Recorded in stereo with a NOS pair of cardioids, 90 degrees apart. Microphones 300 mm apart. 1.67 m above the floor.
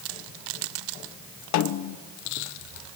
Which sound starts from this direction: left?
A snare drum, at 1.5 s.